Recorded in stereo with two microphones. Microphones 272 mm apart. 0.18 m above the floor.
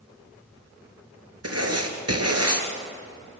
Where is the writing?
60° right (ahead or behind), 3 m.